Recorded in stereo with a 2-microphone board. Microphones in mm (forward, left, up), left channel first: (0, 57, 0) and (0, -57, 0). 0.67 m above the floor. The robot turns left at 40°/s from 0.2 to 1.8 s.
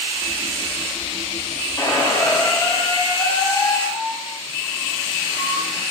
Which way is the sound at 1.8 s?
30° left (ahead or behind).